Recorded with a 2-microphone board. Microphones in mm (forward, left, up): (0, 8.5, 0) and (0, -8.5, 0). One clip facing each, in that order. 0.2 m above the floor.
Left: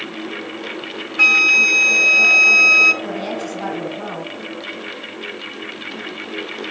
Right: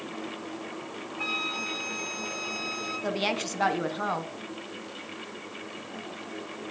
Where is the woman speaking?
25° right (ahead or behind), 1.5 m.